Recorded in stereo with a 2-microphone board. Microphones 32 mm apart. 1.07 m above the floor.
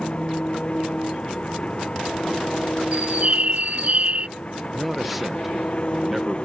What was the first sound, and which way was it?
An engine running, 35° left (ahead or behind).